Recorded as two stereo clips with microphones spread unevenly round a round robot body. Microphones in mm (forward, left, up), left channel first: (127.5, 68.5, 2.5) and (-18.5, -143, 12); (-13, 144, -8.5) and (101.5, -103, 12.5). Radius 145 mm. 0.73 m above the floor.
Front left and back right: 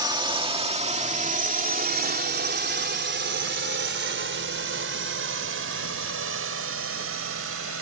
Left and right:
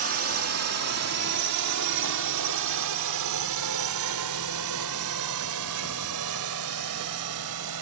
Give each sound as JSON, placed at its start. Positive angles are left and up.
{"t": 0.0, "sound": "a drone", "azimuth_deg": -55}